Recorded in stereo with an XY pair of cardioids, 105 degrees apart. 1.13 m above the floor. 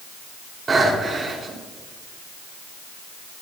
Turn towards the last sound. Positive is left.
turn(degrees=-25)